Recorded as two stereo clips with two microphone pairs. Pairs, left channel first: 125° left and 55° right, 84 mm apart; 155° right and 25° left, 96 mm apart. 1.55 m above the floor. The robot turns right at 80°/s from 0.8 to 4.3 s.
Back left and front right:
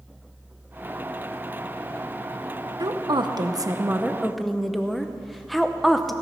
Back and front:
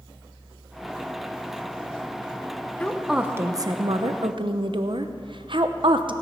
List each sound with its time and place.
2.8 s a woman speaking: 80° right, 0.8 m; by 6.1 s 40° left, 0.8 m